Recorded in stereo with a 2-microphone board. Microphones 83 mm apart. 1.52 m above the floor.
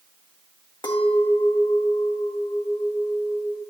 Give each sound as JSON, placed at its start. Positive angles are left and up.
{"t": 0.8, "sound": "a clink", "side_deg": 65, "distance_m": 0.9}